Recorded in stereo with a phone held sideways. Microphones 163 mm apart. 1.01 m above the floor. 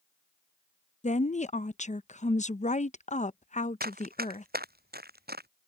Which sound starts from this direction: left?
A woman speaking, at 1.0 s.